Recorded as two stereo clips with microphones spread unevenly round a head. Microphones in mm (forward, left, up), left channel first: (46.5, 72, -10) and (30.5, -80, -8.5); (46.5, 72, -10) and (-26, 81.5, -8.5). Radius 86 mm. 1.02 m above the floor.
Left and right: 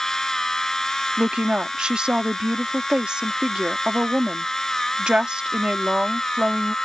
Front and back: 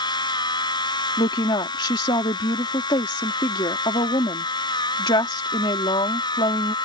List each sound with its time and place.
0.0 s a machine running: 5° right
1.2 s a woman speaking: 10° right